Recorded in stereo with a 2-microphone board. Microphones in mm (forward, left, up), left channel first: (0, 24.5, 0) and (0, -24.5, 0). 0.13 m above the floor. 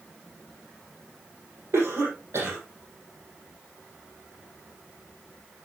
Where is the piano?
No piano in this recording.